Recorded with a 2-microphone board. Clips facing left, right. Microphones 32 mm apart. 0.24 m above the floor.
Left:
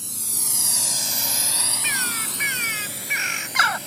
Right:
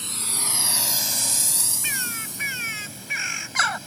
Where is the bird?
10° left (ahead or behind).